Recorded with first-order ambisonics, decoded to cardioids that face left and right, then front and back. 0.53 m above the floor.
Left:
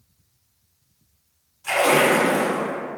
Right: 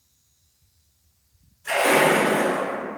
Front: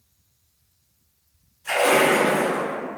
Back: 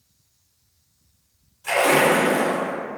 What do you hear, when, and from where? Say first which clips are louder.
1.6 s a splash: left 1 dB, back 1 dB; 135° left, 1.6 m